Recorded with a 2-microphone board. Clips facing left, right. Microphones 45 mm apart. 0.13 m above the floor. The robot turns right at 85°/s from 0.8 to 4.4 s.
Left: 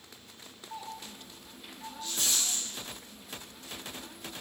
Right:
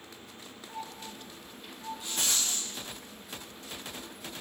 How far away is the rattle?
About 5 m.